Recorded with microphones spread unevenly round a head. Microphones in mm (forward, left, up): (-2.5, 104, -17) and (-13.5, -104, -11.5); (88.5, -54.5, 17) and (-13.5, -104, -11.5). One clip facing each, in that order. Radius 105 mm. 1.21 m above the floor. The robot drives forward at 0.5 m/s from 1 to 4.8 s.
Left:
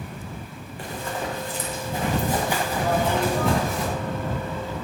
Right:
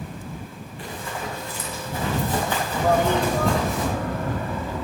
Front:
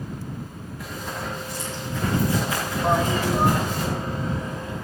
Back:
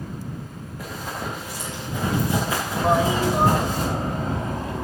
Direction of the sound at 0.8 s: 135° left.